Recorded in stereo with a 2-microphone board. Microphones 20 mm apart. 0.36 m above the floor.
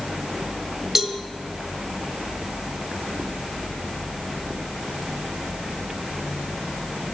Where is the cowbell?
25° right (ahead or behind), 1.6 m.